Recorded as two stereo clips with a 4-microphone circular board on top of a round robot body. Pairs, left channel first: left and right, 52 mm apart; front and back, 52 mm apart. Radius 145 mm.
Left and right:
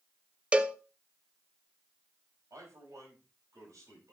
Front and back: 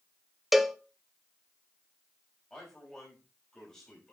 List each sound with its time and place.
0.5 s a cowbell: 100° right, 1.0 m
2.5 s a man speaking: 75° right, 5.5 m